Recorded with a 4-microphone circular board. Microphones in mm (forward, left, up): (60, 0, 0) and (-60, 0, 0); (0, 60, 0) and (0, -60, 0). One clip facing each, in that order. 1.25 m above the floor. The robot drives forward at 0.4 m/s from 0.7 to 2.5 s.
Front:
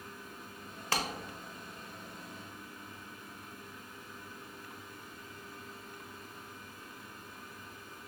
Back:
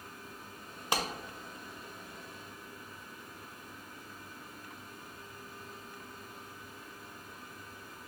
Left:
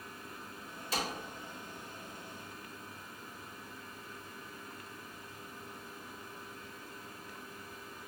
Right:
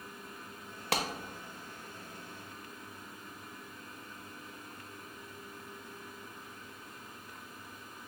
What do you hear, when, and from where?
0.9 s a clap: 105° right, 0.6 m; by 1.0 s 110° right, 0.6 m